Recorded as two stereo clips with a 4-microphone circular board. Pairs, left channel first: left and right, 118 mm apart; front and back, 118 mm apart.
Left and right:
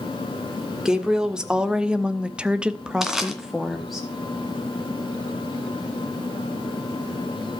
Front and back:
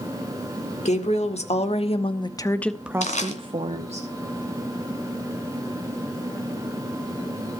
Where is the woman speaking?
5° right, 1.8 m; by 4.0 s straight behind, 1.2 m.